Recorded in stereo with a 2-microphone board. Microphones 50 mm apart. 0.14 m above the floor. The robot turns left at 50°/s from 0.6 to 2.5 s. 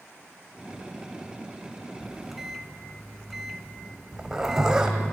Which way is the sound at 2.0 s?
10° right (ahead or behind).